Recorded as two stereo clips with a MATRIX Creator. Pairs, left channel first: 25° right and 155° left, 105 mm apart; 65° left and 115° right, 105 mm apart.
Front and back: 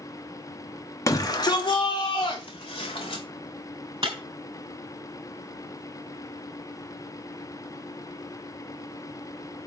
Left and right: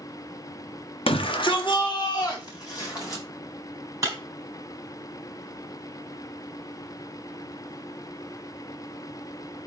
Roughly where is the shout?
Ahead left.